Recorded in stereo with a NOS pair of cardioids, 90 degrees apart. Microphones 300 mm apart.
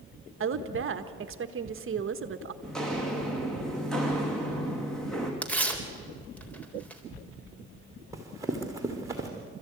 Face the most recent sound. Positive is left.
turn(degrees=-10)